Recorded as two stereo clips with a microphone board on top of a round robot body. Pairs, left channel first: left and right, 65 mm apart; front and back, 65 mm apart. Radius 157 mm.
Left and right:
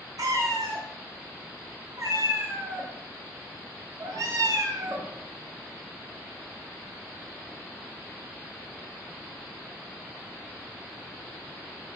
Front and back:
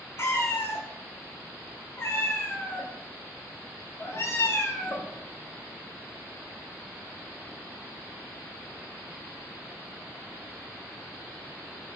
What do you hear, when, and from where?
0.2 s a cat meowing: 55° right, 0.7 m